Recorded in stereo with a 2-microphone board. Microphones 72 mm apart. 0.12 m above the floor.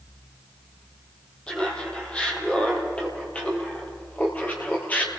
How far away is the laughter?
About 5.5 m.